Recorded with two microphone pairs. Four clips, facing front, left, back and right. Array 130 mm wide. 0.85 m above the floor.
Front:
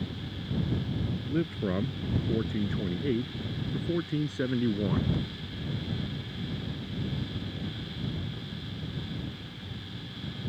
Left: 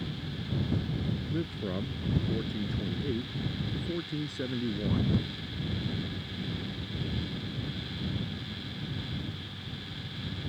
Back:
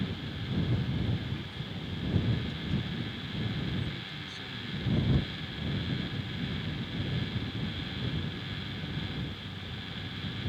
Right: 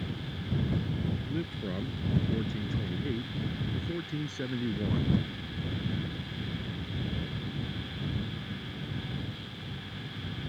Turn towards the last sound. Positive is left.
turn(degrees=10)